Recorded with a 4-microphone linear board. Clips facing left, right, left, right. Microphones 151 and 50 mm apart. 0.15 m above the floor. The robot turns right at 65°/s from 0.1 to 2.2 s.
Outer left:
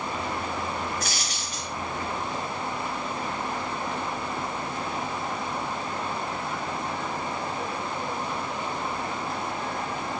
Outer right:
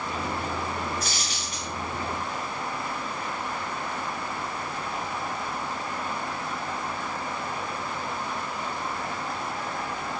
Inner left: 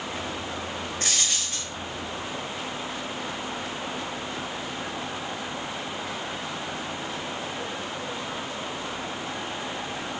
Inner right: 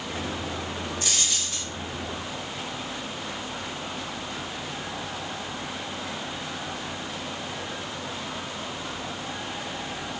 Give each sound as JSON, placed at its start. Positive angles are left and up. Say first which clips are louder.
{"t": 1.0, "sound": "a dropped coin", "louder": "even, inner left 1 dB", "azimuth_deg": 105, "distance_m": 4.5}